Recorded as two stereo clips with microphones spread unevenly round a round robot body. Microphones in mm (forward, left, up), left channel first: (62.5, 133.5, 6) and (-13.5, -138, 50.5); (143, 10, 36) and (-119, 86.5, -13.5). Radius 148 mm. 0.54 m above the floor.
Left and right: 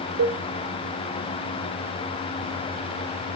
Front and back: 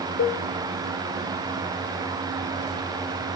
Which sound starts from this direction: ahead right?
A cowbell, at 0.2 s.